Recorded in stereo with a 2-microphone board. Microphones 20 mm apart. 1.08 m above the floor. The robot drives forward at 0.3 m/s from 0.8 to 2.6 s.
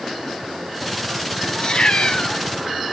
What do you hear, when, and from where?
1.6 s a cat meowing: 45° left (ahead or behind), 2 m; by 2.4 s 50° left (ahead or behind), 2.0 m